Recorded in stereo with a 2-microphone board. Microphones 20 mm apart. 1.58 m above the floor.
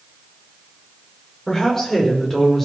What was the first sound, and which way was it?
A woman speaking, 30° left (ahead or behind).